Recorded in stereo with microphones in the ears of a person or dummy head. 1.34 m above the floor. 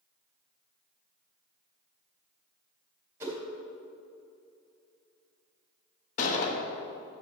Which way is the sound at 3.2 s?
15° right (ahead or behind).